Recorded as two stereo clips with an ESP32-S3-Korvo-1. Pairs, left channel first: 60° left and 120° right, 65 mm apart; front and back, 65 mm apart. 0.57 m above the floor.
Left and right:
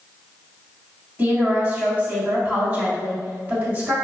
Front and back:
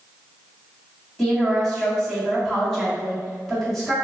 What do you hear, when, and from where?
1.2 s a woman speaking: 85° right, 1.3 m